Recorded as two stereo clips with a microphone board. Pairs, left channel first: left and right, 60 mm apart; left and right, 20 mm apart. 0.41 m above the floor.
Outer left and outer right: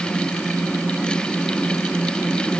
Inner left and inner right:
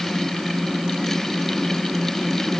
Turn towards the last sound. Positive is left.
No sound to turn to.